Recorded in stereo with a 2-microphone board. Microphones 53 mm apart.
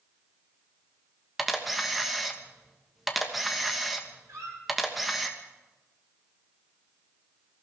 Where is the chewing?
I don't hear chewing.